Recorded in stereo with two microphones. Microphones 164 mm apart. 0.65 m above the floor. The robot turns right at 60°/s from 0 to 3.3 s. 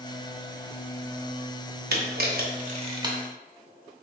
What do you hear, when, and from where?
1.9 s a camera shutter: 80° right, 0.6 m; by 3.1 s 20° right (ahead or behind), 0.6 m